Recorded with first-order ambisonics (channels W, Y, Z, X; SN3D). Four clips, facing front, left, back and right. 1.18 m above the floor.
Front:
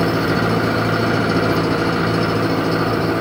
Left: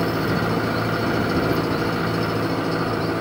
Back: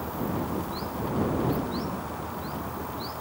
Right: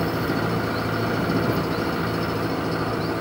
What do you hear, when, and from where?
0.0 s an engine running: 10° left